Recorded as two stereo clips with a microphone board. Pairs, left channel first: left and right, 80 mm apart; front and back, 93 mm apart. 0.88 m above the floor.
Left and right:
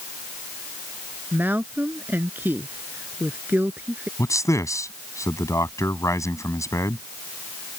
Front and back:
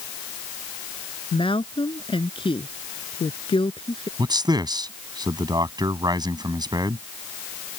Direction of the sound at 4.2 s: 140° left.